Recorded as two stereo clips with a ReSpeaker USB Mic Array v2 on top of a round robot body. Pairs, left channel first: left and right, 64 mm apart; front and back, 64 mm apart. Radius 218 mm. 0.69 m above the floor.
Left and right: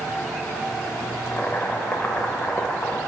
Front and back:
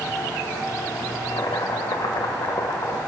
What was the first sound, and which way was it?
Boiling, 25° left.